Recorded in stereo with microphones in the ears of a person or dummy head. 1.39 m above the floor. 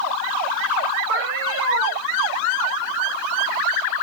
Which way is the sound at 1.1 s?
60° right (ahead or behind).